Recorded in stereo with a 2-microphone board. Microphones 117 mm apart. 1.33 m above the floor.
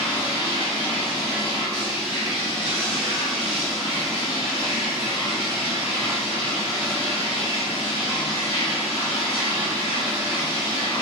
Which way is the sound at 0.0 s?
45° left (ahead or behind).